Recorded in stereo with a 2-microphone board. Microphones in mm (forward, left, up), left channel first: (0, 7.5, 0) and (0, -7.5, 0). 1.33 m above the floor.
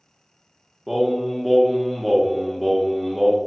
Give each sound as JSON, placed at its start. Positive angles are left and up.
{"t": 0.9, "sound": "singing", "side_deg": -5, "distance_m": 0.6}